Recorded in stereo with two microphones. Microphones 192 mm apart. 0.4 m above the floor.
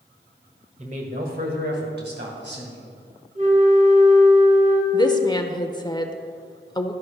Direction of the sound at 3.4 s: 45° right (ahead or behind).